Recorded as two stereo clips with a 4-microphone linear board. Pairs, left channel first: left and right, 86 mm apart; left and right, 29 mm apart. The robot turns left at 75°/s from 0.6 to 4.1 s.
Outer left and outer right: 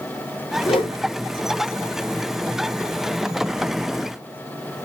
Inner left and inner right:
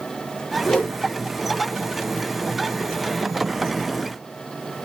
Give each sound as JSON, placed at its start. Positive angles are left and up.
{"t": 0.7, "sound": "a whoosh", "side_deg": 85, "distance_m": 4.5}